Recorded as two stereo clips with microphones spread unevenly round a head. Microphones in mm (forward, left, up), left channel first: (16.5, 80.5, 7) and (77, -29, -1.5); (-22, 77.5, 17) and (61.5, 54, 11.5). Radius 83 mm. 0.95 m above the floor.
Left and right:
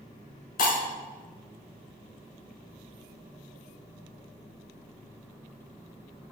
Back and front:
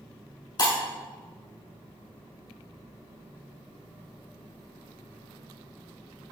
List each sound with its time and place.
0.6 s breaking glass: 125° left, 5 m